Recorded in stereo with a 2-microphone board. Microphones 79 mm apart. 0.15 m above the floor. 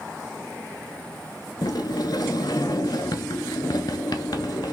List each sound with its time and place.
1.6 s a sliding door: 65° left (ahead or behind), 0.6 m